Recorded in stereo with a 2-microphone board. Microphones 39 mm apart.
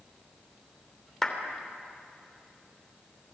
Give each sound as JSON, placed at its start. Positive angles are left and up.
{"t": 1.2, "sound": "a clap", "side_deg": 10, "distance_m": 3.0}